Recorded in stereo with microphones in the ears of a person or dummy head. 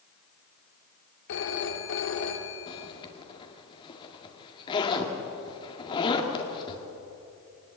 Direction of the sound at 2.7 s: 30° left (ahead or behind).